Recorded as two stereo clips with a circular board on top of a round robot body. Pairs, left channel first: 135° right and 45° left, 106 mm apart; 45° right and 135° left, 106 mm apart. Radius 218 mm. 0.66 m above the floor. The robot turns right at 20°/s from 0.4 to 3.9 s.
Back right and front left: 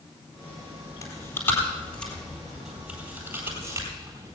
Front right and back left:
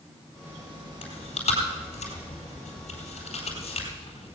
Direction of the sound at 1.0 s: 75° right.